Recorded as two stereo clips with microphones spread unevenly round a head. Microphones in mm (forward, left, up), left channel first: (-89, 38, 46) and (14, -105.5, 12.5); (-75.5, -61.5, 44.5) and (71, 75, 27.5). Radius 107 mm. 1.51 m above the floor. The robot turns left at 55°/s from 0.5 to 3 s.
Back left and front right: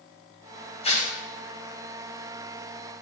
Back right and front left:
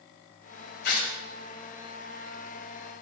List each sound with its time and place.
0.8 s tearing paper: 175° right, 1.9 m; by 1.2 s 165° left, 1.9 m